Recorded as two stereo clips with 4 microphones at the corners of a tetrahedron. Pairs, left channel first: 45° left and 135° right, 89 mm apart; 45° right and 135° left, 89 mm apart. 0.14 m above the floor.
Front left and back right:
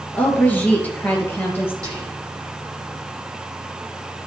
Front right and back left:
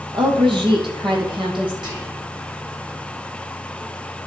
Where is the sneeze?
No sneeze in this recording.